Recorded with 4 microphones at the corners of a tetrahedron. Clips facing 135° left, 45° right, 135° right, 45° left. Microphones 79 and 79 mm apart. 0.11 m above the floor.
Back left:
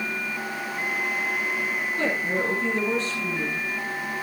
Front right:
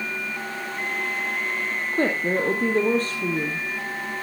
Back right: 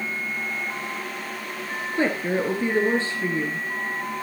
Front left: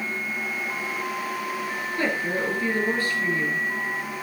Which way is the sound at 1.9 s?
75° right.